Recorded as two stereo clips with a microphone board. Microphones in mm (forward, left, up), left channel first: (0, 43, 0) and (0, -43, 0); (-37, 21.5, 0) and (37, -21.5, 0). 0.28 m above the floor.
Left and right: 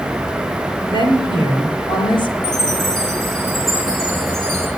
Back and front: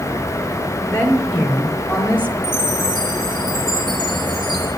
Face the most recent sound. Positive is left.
turn(degrees=5)